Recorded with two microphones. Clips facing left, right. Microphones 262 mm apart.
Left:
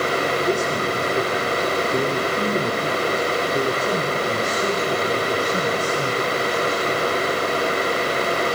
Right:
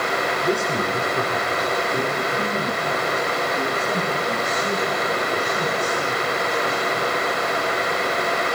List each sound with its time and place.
0.4 s a man speaking: centre (ahead or behind), 2 m; by 7.1 s 80° left, 5 m